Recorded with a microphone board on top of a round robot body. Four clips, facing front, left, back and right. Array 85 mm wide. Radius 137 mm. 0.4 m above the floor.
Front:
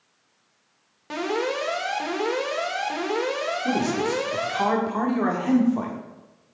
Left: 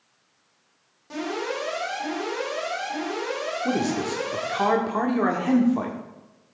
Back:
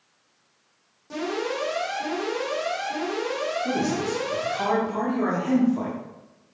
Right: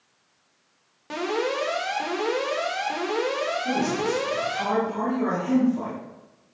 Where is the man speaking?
60° left, 1.7 m.